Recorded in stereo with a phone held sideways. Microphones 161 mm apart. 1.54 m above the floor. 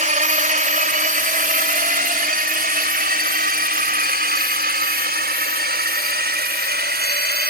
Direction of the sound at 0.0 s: 50° right (ahead or behind).